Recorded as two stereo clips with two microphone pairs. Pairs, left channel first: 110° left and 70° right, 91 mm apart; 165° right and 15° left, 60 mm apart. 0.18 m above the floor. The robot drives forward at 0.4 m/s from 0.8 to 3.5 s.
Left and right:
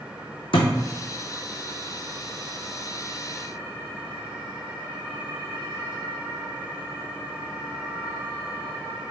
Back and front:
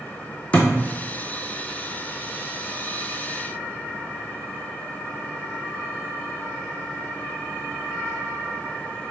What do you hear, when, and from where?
0.5 s a thud: 125° left, 1.4 m